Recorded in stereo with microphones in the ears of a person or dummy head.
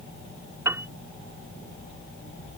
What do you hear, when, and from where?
0.7 s a piano: 15° right (ahead or behind)